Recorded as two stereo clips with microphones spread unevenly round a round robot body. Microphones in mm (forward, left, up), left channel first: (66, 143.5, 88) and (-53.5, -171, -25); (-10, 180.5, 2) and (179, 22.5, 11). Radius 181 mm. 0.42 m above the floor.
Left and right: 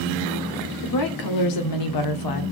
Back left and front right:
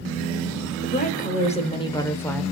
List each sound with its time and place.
0.8 s a woman speaking: 105° left, 1.9 m; by 2.4 s 60° left, 1.6 m